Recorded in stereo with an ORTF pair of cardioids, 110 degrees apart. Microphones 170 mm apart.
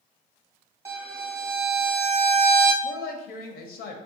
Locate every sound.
0.8 s a violin: 15° right, 0.6 m
2.8 s a woman speaking: 70° left, 0.5 m